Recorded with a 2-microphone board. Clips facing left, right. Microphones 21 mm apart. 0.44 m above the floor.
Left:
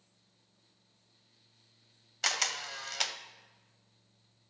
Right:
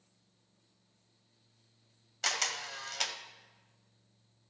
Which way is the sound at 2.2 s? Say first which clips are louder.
Left 1 dB; 15° left (ahead or behind).